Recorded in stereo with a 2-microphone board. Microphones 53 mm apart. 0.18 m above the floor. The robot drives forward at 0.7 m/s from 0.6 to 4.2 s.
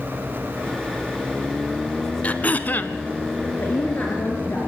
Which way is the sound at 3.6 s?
40° left (ahead or behind).